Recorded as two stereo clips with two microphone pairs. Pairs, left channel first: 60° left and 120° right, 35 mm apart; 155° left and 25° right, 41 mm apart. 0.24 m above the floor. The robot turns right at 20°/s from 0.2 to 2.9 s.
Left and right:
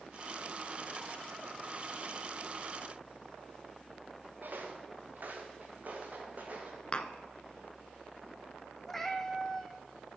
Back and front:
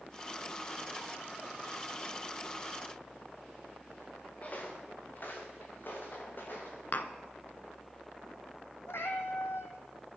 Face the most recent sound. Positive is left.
turn(degrees=140)